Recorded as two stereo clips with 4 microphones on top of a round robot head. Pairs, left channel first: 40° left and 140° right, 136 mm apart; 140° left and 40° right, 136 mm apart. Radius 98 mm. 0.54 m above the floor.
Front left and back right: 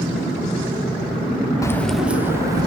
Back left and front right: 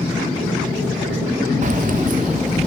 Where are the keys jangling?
25° right, 0.6 m; by 2.7 s 75° right, 1.2 m.